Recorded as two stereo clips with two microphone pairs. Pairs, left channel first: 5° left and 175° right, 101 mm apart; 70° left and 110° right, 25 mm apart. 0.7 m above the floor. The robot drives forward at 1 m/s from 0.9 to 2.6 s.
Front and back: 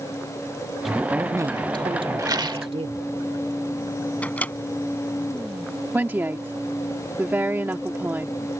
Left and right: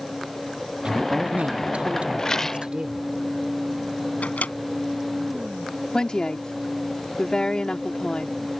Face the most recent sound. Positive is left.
turn(degrees=115)